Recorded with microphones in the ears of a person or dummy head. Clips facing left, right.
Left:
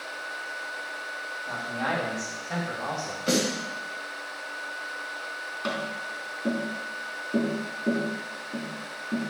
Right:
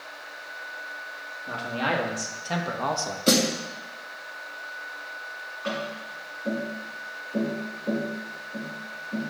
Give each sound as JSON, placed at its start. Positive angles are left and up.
{"t": 1.5, "sound": "a man speaking", "side_deg": -35, "distance_m": 2.5}
{"t": 3.3, "sound": "a snare drum", "side_deg": -60, "distance_m": 2.5}
{"t": 5.6, "sound": "tapping", "side_deg": 55, "distance_m": 3.5}